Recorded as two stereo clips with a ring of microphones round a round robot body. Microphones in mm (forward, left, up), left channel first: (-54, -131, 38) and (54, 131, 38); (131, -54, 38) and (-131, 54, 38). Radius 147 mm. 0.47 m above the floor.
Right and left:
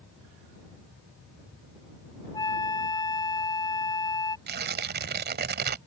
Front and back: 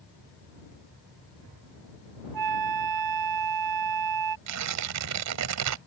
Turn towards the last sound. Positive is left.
turn(degrees=125)